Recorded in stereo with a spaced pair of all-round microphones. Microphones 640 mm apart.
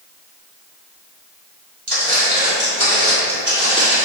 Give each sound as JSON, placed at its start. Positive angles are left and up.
{"t": 1.9, "sound": "footsteps", "side_deg": -30, "distance_m": 1.9}